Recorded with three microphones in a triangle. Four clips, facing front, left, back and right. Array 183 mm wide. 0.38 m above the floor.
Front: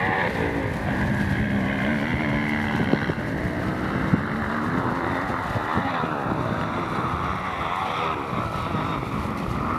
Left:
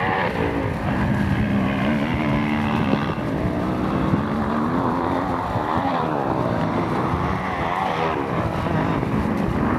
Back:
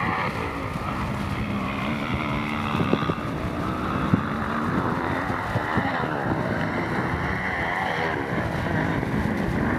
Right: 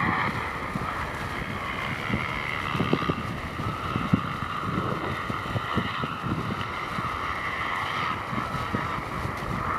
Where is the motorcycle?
65° left; by 9.8 s 110° left.